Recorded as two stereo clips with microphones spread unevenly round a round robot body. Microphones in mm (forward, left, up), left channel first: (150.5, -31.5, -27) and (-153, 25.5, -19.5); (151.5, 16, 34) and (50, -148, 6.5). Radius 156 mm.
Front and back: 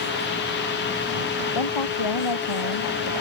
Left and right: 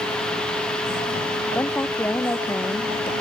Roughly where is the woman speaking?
Ahead.